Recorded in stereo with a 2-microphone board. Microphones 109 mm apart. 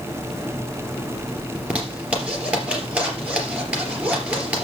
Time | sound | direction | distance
1.6 | a zipper | 10° right (ahead or behind) | 3 m